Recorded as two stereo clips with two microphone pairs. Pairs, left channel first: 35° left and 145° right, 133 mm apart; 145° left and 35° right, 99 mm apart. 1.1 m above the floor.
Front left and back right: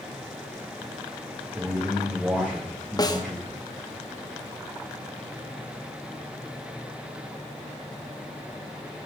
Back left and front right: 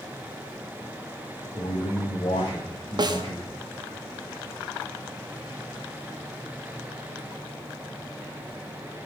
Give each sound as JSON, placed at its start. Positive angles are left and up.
{"t": 1.6, "sound": "a man speaking", "azimuth_deg": 135, "distance_m": 1.4}
{"t": 3.0, "sound": "a snare drum", "azimuth_deg": -10, "distance_m": 0.6}